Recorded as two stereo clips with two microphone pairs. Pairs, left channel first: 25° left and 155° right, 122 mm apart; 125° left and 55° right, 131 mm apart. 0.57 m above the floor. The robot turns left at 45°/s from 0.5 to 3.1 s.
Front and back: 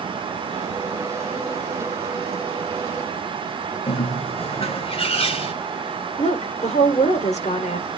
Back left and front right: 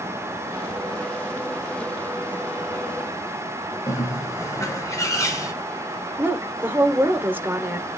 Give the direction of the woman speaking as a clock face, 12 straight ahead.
11 o'clock.